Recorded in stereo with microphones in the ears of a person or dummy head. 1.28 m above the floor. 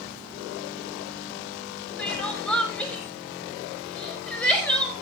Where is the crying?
10° left (ahead or behind), 4.5 m.